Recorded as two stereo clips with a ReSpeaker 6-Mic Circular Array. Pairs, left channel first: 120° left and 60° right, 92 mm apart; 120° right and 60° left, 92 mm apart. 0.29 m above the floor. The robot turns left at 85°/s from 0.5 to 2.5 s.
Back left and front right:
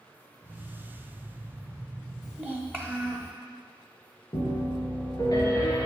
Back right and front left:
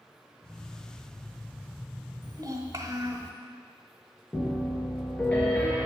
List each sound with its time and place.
2.2 s a child speaking: 65° left, 0.8 m; by 3.3 s 45° left, 0.8 m
4.3 s a piano: 165° left, 2 m